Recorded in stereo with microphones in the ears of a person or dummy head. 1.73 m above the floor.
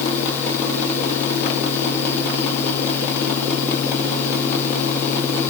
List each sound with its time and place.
Only background noise.